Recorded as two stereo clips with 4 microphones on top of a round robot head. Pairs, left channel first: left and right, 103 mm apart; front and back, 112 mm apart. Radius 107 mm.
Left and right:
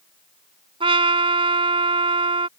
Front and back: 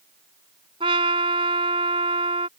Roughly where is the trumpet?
Behind right.